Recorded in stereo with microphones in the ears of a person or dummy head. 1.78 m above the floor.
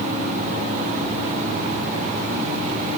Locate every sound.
Only background noise.